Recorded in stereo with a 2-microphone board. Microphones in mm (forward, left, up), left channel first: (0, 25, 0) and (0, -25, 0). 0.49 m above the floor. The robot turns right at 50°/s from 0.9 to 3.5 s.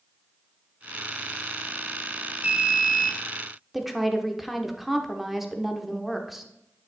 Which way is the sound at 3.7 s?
Centre (ahead or behind).